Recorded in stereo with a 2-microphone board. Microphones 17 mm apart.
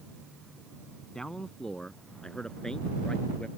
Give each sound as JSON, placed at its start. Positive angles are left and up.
{"t": 1.1, "sound": "a man speaking", "side_deg": 35}